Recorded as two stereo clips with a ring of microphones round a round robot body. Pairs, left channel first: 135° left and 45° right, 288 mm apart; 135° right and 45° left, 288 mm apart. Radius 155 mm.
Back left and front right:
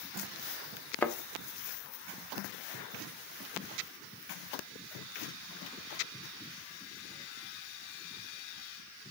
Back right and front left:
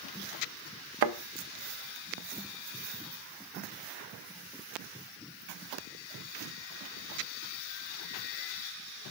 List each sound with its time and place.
1.0 s a thud: 50° left, 0.7 m